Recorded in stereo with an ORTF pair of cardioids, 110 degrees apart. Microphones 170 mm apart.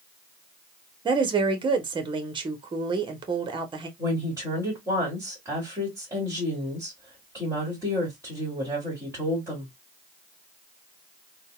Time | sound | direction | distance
1.1 | a woman speaking | 30° right | 1.0 m
4.0 | a woman speaking | 15° right | 2 m